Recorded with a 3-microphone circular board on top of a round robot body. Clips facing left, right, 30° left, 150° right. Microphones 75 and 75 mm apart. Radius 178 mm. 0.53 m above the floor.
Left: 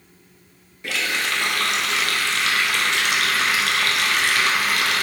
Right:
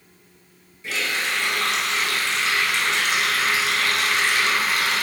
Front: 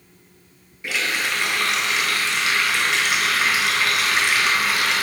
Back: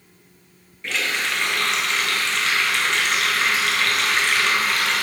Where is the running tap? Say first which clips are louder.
Left 1 dB, front 1 dB; 110° left, 0.6 m.